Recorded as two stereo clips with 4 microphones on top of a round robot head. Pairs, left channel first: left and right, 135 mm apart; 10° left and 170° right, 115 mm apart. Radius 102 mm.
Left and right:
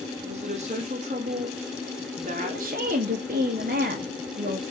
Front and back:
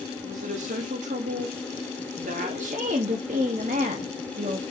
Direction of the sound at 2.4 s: 130° right.